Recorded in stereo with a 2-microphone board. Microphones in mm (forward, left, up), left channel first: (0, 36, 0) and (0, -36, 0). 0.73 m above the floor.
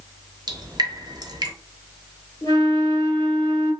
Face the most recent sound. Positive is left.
turn(degrees=60)  # may be behind; listen again after turning